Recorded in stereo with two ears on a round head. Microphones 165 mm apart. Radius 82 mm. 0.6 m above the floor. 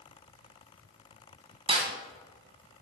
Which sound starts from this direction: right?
A snare drum, at 1.7 s.